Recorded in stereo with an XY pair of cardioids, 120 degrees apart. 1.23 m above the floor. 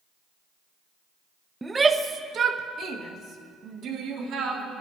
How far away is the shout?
About 0.7 m.